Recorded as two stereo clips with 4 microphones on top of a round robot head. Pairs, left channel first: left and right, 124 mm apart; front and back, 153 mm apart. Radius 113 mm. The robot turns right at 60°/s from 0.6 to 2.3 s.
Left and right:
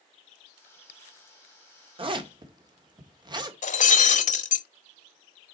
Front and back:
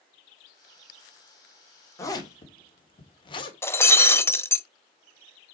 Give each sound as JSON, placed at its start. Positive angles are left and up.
{"t": 2.0, "sound": "a zipper", "azimuth_deg": -70, "distance_m": 1.9}
{"t": 3.6, "sound": "breaking glass", "azimuth_deg": 75, "distance_m": 1.0}